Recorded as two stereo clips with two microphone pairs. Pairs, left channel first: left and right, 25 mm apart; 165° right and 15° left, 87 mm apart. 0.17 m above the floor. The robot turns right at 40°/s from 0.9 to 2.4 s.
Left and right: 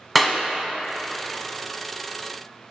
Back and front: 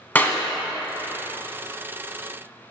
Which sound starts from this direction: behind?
A clap, at 0.1 s.